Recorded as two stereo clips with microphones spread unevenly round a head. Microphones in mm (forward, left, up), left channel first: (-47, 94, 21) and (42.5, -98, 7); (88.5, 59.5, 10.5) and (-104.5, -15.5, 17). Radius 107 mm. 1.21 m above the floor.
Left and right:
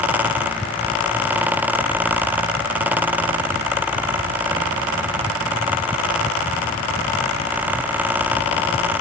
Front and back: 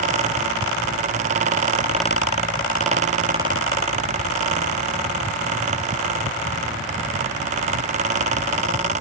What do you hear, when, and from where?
Only background noise.